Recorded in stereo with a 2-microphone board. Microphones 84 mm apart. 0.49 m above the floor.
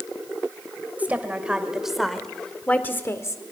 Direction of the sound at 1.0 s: 20° right (ahead or behind).